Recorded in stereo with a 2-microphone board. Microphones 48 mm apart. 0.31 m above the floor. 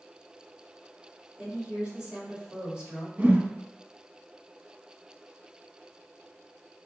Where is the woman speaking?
20° right (ahead or behind), 1.5 m.